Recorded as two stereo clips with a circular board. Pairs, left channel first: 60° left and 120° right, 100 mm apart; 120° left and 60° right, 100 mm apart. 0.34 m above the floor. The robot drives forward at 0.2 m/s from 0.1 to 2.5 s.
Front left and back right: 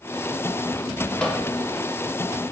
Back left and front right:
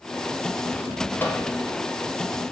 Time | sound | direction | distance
1.2 | a microwave | 130° left | 0.6 m